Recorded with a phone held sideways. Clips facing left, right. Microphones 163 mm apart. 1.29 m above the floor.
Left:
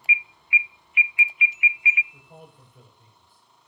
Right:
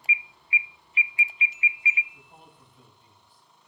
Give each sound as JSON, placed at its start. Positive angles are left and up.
{"t": 0.1, "sound": "an alarm", "side_deg": -35, "distance_m": 0.5}
{"t": 2.1, "sound": "a man speaking", "side_deg": 60, "distance_m": 7.0}